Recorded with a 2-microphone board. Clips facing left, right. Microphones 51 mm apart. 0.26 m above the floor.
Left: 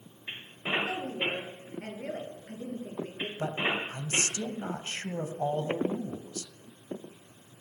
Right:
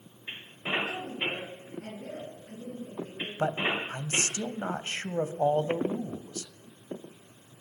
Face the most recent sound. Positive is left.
turn(degrees=-35)  # may be behind; listen again after turning